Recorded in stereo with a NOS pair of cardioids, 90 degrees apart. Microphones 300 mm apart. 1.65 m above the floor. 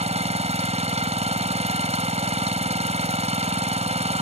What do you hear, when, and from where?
0.0 s an engine running: 20° right